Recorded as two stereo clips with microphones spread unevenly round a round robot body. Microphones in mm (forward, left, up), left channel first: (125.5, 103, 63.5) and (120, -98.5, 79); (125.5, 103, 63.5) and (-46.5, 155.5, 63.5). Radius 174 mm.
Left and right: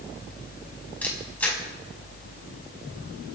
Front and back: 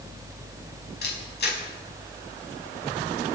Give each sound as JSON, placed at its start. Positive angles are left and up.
{"t": 1.0, "sound": "a camera shutter", "azimuth_deg": 5, "distance_m": 6.0}